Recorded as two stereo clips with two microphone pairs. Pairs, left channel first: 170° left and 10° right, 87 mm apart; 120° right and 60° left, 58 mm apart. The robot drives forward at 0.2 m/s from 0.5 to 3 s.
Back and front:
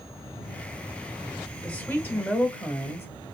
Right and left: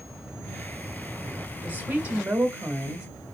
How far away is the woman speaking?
About 1.2 m.